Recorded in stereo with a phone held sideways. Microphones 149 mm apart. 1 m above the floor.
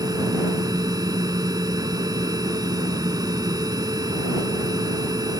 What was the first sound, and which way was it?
A machine running, 25° right (ahead or behind).